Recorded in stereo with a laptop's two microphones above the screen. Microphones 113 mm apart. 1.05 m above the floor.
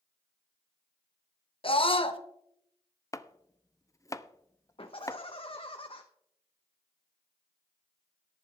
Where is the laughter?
55° left (ahead or behind), 0.8 m.